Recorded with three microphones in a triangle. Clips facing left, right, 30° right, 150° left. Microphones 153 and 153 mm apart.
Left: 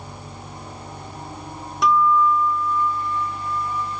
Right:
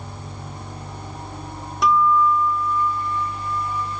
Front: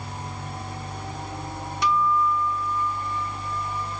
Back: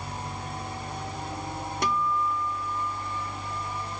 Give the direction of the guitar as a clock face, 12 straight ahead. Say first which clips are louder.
Even, front 5 dB; 6 o'clock.